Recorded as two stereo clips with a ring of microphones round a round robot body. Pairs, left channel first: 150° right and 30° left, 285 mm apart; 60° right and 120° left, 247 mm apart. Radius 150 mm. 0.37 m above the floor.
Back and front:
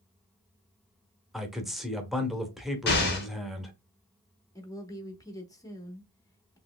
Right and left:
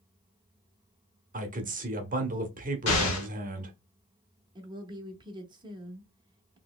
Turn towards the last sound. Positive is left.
turn(degrees=155)